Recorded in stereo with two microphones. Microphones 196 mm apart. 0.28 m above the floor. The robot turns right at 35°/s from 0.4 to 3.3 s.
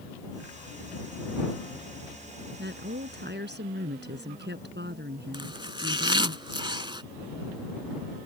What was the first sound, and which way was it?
A woman speaking, 65° right (ahead or behind).